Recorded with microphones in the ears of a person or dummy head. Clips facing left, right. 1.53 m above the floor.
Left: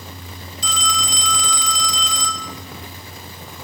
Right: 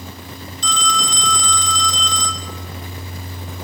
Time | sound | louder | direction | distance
0.6 | a phone ringing | right 3 dB | 10° left (ahead or behind) | 0.8 m